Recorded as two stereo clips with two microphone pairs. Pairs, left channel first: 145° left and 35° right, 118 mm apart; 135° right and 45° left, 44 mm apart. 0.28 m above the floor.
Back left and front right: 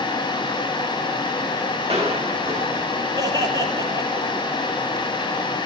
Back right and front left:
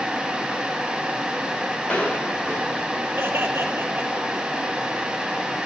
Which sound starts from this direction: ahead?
Laughter, at 3.2 s.